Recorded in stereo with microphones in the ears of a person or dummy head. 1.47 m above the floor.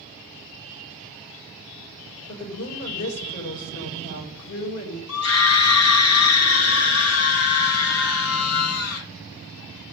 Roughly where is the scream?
Left.